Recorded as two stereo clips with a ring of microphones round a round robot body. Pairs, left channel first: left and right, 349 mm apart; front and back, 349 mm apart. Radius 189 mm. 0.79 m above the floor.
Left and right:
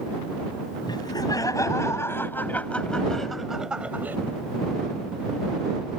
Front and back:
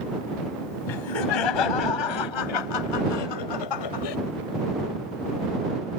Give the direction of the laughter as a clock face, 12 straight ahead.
12 o'clock.